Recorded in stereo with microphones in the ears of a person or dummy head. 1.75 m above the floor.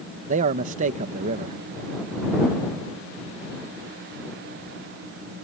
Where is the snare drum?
I don't hear a snare drum.